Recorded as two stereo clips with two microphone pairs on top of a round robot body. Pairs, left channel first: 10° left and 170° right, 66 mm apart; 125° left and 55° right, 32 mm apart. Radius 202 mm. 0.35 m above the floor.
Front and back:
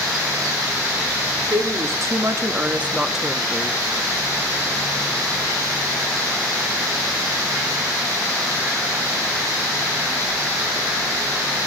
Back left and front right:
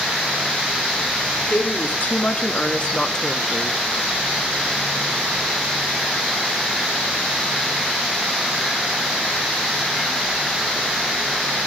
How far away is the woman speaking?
About 1.9 m.